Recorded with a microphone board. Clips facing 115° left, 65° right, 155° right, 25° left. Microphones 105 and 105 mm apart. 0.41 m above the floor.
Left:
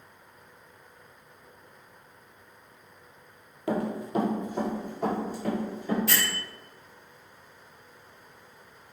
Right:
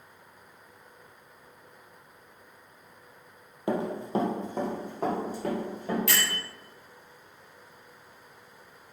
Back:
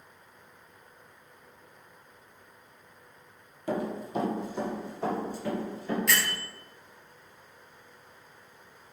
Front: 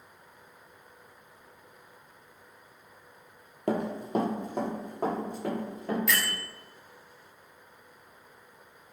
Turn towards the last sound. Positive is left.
turn(degrees=-65)